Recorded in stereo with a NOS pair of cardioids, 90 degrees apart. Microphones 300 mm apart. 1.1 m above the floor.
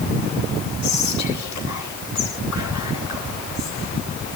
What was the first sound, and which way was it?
Whispering, 65° left.